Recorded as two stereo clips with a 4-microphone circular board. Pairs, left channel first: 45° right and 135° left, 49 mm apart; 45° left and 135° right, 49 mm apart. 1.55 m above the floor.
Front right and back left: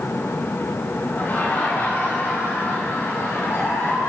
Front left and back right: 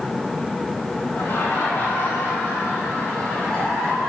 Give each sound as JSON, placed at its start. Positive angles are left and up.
{"t": 1.1, "sound": "laughter", "azimuth_deg": 5, "distance_m": 5.5}